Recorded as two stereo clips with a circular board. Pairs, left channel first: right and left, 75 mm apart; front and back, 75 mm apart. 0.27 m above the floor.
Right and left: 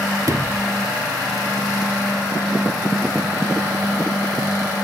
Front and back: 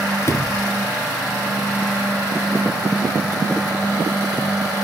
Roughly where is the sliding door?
Ahead left.